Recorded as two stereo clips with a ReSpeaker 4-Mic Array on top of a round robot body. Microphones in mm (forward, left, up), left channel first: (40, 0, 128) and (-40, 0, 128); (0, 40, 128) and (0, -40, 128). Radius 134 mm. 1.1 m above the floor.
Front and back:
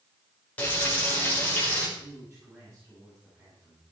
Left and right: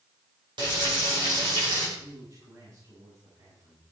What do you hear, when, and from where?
0.6 s frying: 70° right, 4.5 m
2.0 s a man speaking: 115° right, 9 m